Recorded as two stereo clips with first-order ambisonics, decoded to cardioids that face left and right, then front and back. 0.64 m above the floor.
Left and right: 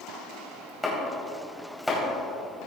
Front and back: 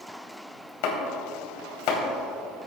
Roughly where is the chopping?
Ahead.